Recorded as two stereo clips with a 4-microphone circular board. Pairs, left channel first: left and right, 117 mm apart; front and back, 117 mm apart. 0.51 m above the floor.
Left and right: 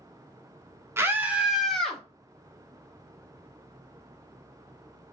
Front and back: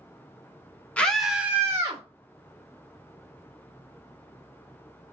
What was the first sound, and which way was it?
A scream, 60° right.